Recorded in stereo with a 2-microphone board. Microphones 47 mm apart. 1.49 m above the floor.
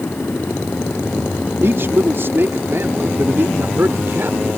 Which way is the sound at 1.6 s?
60° right (ahead or behind).